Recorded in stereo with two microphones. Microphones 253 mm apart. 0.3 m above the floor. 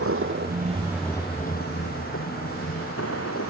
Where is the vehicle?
60° right (ahead or behind); by 3.5 s 65° left (ahead or behind).